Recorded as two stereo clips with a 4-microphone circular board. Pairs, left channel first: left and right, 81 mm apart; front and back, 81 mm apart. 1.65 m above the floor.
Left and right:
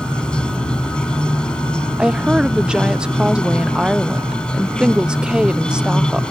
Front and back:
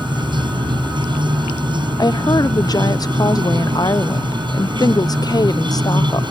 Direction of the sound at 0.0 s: 170° left.